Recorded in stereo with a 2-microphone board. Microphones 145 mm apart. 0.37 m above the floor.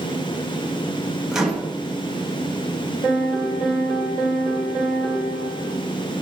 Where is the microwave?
5° right (ahead or behind), 0.7 m.